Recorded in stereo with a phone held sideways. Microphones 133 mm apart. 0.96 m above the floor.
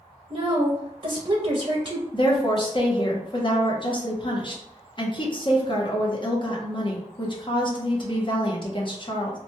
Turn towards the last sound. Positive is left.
turn(degrees=35)  # may be behind; listen again after turning